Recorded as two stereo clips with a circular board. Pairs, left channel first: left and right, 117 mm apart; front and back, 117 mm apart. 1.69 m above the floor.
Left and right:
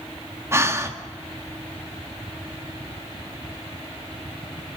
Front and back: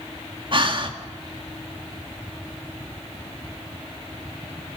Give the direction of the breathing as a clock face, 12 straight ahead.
5 o'clock.